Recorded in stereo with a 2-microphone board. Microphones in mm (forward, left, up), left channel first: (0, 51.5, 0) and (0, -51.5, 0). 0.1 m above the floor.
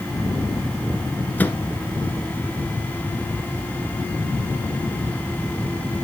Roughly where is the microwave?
Centre.